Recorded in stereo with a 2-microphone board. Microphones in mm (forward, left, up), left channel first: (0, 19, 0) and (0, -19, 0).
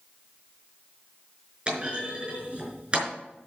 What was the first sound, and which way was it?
A clunk, 30° right (ahead or behind).